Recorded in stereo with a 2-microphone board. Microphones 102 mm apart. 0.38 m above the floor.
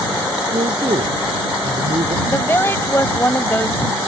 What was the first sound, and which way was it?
A man speaking, 80° right.